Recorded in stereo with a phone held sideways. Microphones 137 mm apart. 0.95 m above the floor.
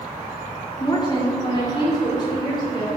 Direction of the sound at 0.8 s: 30° left (ahead or behind).